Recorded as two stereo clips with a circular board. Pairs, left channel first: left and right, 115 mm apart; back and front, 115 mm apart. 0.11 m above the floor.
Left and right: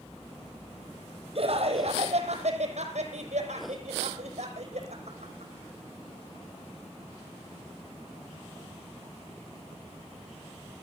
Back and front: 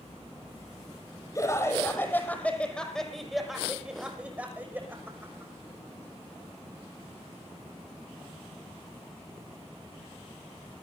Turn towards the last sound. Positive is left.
turn(degrees=-65)